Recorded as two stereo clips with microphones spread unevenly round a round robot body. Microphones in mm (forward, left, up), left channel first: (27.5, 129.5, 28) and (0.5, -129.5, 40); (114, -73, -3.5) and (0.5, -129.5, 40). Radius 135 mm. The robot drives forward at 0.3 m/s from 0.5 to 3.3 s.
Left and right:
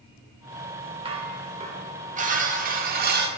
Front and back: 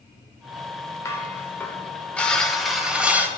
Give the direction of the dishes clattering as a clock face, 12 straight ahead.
1 o'clock.